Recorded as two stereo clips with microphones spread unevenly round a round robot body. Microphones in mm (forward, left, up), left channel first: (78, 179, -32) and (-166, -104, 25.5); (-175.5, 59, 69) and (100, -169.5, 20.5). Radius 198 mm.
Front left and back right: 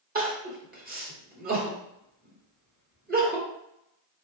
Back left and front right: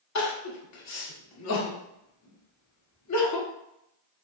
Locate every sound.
0.1 s crying: 165° left, 1.2 m